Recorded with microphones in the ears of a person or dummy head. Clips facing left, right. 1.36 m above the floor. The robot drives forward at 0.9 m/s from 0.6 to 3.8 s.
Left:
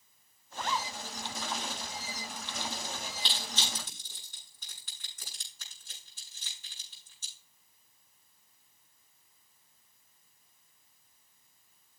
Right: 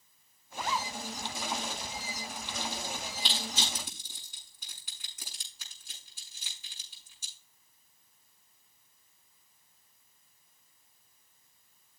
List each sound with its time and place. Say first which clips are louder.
0.5 s a zipper: even; 5° right (ahead or behind), 0.7 m
3.2 s crushing: right 2 dB; 15° right (ahead or behind), 7 m